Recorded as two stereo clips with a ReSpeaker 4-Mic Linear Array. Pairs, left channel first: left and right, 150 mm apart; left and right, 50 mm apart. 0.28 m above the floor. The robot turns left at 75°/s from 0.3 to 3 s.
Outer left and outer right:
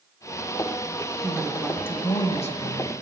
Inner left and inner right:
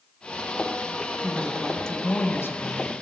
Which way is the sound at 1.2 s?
150° right.